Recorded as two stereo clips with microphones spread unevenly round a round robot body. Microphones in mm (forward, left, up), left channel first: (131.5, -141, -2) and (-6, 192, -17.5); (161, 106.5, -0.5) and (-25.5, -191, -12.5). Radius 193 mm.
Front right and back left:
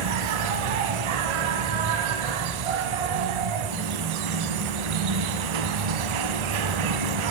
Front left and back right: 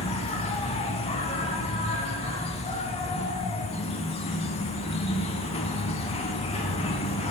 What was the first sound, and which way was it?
An insect, 135° left.